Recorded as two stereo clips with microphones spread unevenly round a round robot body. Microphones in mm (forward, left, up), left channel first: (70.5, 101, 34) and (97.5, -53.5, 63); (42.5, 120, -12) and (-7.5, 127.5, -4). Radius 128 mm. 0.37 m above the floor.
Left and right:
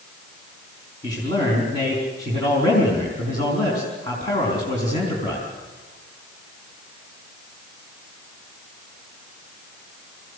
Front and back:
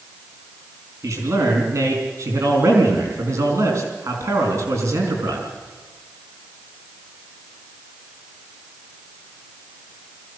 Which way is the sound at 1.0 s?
165° left.